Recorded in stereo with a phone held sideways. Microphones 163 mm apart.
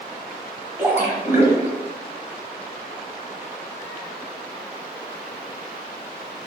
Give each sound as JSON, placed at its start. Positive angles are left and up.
{"t": 0.8, "sound": "a splash", "side_deg": -15, "distance_m": 1.1}